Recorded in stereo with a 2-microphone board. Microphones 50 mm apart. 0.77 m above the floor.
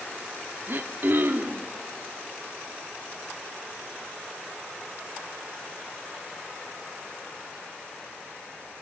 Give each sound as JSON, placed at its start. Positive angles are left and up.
{"t": 0.7, "sound": "throat clearing", "side_deg": -45, "distance_m": 2.0}